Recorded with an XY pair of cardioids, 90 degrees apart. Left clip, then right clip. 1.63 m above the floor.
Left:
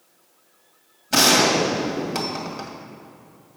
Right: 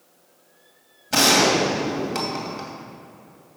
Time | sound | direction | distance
1.1 | a gunshot | 5° left | 2 m